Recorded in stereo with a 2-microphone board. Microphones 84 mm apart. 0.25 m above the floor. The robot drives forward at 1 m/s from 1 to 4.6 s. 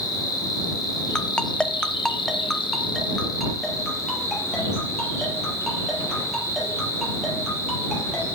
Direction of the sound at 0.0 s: 50° left (ahead or behind).